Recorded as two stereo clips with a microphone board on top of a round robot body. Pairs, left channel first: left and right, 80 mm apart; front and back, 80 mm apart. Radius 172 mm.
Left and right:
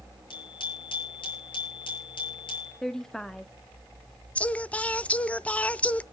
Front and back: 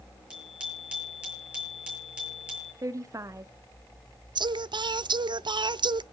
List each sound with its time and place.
0.3 s a bicycle bell: 105° left, 9.5 m
2.8 s a woman speaking: 170° left, 0.9 m
4.3 s singing: 165° left, 0.6 m